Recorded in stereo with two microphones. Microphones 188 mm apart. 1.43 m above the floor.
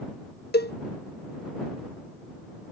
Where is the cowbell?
60° left (ahead or behind).